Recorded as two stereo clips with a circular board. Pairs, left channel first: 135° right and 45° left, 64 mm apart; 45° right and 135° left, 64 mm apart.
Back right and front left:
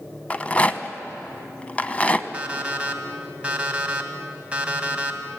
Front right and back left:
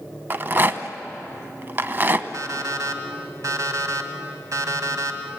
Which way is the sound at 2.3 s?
115° left.